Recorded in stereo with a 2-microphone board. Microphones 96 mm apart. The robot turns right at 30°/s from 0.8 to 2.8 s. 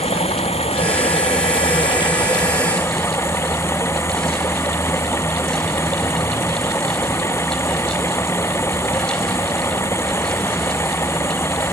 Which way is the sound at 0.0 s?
95° left.